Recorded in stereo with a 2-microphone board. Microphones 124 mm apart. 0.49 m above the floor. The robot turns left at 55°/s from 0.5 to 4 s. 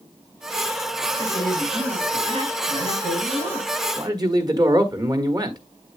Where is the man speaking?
30° right (ahead or behind), 1.1 m.